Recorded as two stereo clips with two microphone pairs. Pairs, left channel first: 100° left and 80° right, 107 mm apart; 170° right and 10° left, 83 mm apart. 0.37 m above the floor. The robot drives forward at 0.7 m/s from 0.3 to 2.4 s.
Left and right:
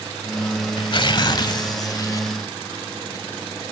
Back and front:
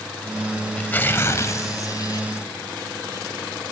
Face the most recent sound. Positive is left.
turn(degrees=155)